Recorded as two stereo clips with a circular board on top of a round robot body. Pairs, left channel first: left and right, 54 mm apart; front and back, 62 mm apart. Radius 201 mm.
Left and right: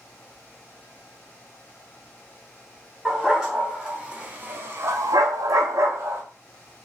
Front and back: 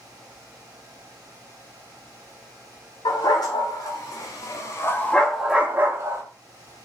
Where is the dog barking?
10° right, 1.6 m; by 6.2 s 135° right, 0.8 m.